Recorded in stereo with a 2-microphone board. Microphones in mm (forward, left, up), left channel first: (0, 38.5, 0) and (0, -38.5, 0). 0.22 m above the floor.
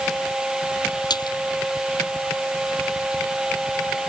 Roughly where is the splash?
Left.